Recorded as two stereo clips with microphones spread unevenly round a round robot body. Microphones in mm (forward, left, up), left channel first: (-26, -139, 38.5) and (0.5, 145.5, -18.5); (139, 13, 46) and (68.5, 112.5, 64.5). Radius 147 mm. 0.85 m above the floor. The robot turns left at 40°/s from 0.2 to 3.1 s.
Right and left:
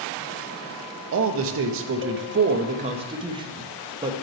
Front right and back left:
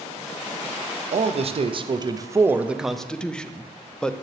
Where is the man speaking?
100° left, 0.5 m; by 4.1 s 25° left, 0.5 m.